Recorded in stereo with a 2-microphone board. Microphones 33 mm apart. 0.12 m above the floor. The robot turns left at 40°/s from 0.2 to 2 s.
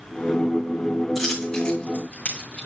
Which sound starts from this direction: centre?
A dropped coin, at 1.1 s.